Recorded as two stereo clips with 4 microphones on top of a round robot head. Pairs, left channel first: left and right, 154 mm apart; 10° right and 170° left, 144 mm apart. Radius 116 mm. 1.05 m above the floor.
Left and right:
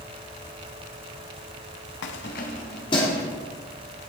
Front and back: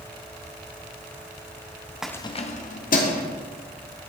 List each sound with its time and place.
2.0 s keys jangling: 85° left, 0.5 m; by 3.2 s 15° left, 1.9 m